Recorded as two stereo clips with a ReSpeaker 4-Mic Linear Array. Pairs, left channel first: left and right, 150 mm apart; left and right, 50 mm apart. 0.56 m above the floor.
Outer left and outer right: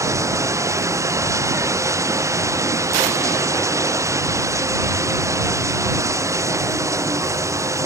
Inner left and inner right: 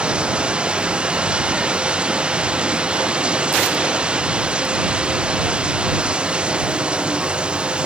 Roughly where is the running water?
Right.